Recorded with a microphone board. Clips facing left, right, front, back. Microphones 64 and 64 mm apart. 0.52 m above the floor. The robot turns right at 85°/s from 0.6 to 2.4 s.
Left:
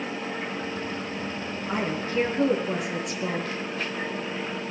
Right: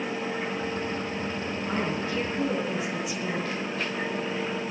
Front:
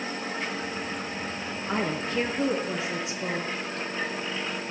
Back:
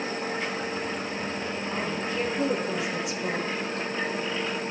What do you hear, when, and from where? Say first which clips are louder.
1.7 s a woman speaking: left 2 dB, front 5 dB; straight ahead, 7.5 m; by 3.6 s 60° left, 7.5 m